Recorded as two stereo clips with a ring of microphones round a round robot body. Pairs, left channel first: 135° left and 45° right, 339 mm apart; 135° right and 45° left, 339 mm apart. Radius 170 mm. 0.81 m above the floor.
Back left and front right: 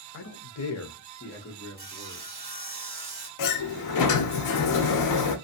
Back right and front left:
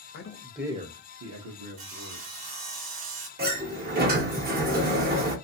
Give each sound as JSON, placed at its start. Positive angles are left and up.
{"t": 0.1, "sound": "a man speaking", "azimuth_deg": 180, "distance_m": 0.6}
{"t": 1.8, "sound": "sawing", "azimuth_deg": 20, "distance_m": 0.9}
{"t": 3.4, "sound": "a sliding door", "azimuth_deg": 105, "distance_m": 0.6}